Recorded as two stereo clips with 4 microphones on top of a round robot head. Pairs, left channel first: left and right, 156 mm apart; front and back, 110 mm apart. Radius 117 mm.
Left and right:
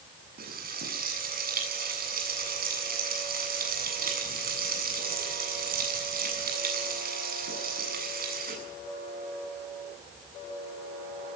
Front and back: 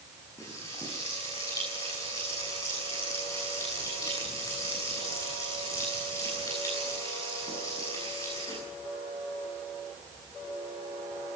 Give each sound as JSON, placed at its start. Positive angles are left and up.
{"t": 0.4, "sound": "frying", "azimuth_deg": -70, "distance_m": 8.5}